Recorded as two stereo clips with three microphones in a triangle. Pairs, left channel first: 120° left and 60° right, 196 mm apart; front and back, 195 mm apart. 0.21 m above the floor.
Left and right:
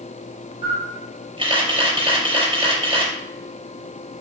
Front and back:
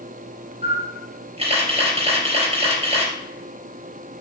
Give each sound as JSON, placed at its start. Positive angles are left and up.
{"t": 0.6, "sound": "a camera shutter", "azimuth_deg": -125, "distance_m": 3.5}